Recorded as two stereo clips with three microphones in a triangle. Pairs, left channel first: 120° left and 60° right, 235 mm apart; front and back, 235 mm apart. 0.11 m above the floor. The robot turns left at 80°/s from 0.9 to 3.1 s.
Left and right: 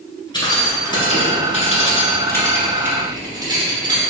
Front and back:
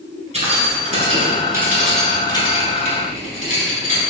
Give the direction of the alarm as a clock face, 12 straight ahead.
I don't hear an alarm.